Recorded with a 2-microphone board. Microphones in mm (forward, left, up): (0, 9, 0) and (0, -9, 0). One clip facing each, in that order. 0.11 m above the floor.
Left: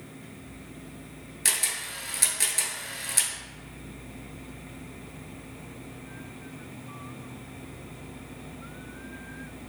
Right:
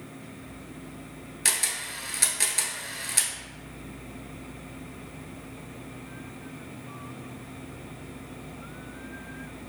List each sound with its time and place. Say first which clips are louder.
1.4 s a camera shutter: right 1 dB; 15° right (ahead or behind), 0.7 m